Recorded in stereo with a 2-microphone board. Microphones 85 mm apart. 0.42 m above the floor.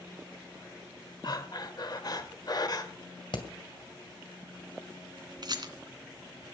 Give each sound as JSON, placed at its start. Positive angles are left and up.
{"t": 1.2, "sound": "breathing", "side_deg": 50, "distance_m": 1.6}
{"t": 3.3, "sound": "hammering", "side_deg": 60, "distance_m": 2.0}
{"t": 5.4, "sound": "a rattle", "side_deg": -55, "distance_m": 1.7}